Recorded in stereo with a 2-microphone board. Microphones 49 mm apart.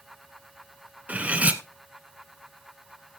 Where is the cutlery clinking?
25° right (ahead or behind), 0.9 m.